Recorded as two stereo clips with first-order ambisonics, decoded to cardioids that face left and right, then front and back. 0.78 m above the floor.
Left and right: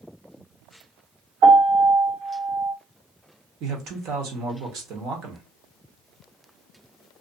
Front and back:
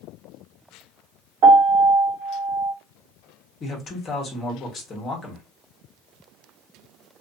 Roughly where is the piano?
Behind.